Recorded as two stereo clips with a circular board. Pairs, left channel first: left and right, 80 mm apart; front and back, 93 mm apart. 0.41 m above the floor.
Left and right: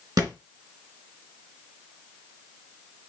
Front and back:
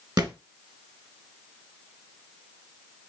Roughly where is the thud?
Behind right.